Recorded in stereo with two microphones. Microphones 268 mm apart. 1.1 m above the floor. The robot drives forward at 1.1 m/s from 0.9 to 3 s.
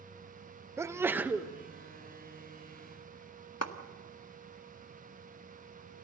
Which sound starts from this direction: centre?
A sneeze, at 0.8 s.